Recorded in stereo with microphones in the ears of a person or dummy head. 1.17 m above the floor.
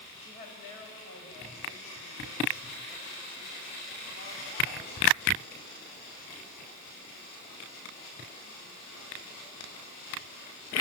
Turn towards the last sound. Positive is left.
turn(degrees=70)  # may be behind; listen again after turning